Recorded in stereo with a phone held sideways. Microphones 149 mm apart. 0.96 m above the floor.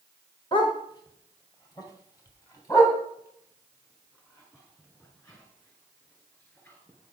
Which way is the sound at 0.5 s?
30° left (ahead or behind).